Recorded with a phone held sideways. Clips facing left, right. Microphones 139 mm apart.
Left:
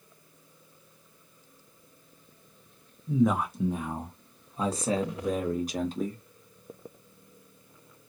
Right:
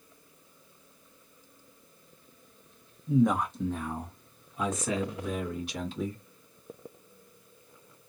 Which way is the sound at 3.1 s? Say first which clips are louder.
Even; 5° right (ahead or behind).